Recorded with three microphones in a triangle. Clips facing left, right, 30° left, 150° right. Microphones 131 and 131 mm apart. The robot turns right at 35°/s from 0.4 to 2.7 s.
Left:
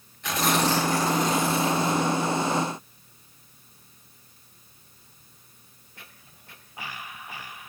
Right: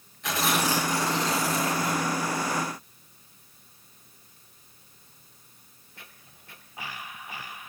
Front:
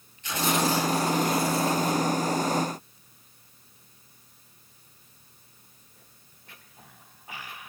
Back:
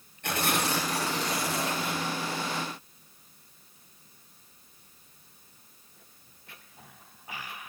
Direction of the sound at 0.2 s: Straight behind.